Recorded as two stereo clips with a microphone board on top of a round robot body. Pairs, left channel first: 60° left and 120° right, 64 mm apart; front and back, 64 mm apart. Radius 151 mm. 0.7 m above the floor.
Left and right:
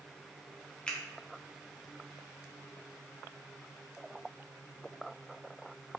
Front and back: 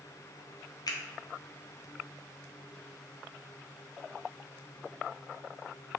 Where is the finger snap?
15° right, 0.6 m.